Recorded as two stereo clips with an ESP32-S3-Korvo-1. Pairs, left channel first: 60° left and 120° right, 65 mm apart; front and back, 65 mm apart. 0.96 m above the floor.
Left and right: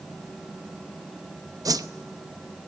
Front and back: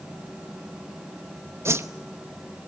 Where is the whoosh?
135° right, 0.8 m.